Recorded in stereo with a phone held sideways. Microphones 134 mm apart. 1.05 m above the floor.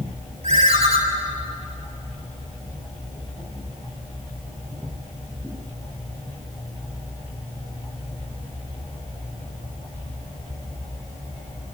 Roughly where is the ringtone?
Right.